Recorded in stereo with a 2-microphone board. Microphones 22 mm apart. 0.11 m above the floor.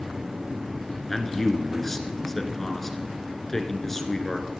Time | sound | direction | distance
1.1 | a man speaking | 10° left (ahead or behind) | 1.7 m